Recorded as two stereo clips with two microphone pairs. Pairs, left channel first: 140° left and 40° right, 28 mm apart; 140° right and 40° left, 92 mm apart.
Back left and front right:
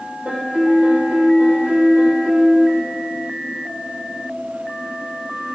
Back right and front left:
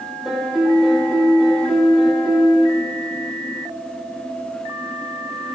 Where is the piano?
45° right, 3 m.